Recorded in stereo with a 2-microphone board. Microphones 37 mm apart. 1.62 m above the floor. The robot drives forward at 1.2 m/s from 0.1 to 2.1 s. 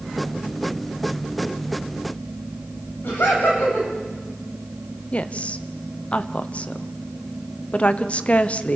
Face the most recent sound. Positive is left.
turn(degrees=40)  # may be behind; listen again after turning